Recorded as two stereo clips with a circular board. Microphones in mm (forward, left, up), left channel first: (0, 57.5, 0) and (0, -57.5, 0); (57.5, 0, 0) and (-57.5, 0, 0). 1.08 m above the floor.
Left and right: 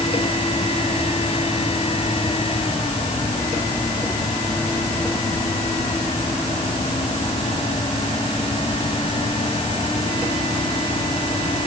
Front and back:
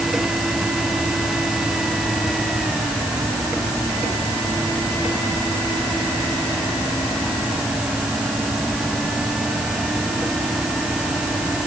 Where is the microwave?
No microwave in this recording.